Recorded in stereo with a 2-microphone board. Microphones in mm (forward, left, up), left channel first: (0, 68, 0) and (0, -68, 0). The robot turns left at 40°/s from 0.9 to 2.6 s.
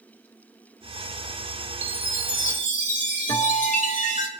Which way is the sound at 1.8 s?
105° left.